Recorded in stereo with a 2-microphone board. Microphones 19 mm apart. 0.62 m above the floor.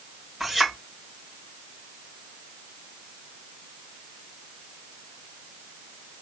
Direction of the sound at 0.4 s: 5° right (ahead or behind).